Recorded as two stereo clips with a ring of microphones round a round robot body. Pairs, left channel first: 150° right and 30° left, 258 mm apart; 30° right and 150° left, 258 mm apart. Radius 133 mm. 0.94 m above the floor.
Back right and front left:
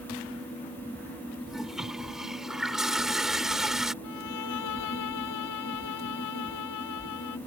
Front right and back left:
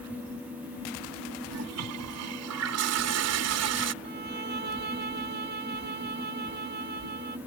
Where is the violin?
155° right.